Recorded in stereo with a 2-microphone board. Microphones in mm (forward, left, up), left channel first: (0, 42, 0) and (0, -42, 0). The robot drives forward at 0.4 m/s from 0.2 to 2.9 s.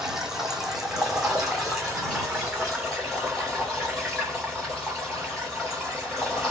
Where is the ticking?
I don't hear ticking.